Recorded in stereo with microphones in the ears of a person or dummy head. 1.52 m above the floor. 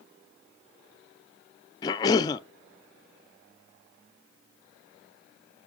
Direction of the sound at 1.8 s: 30° left (ahead or behind).